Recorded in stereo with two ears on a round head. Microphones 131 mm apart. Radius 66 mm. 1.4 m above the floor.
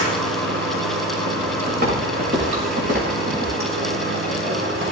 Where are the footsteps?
75° right (ahead or behind), 7 m; by 3.5 s 65° right (ahead or behind), 7.5 m.